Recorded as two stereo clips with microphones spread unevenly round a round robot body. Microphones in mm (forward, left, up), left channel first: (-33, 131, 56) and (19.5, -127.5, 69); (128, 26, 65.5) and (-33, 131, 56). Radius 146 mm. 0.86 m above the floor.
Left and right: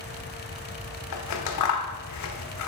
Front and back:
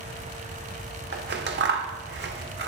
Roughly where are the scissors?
Behind left.